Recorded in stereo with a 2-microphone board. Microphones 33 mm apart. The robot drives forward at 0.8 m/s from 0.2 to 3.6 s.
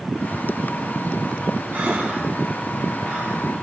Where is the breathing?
65° right (ahead or behind), 2.5 m; by 3.4 s 60° right (ahead or behind), 2.5 m.